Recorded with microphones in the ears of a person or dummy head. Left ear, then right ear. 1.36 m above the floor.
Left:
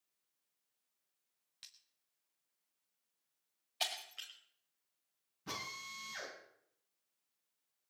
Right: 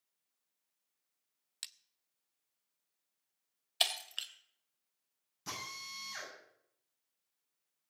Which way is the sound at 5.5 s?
75° right (ahead or behind).